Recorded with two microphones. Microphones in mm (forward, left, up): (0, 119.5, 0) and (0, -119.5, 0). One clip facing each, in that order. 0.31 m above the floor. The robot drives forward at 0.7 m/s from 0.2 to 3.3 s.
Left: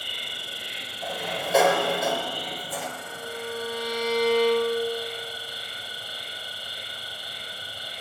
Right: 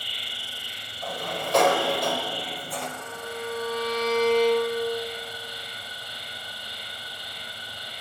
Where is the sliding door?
5° left (ahead or behind), 1.3 m.